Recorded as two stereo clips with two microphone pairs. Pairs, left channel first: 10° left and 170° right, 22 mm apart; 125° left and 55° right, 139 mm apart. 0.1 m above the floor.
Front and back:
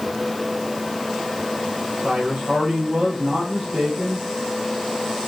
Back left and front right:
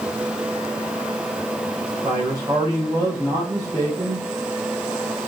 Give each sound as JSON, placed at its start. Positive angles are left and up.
{"t": 2.0, "sound": "a man speaking", "azimuth_deg": -120, "distance_m": 8.0}